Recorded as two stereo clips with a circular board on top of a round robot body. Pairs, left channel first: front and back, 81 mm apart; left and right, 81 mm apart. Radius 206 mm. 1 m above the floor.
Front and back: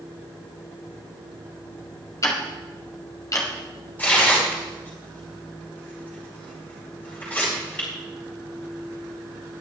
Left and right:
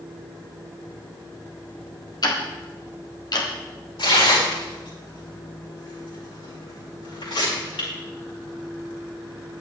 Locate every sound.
2.2 s ticking: 50° left, 1.6 m
4.0 s tearing paper: 70° left, 6 m